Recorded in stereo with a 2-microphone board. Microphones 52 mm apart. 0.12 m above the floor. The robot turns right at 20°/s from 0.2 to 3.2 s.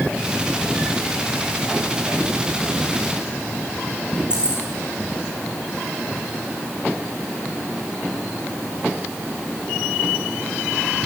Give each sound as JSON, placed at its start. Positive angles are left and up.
{"t": 4.3, "sound": "keys jangling", "side_deg": -15, "distance_m": 5.5}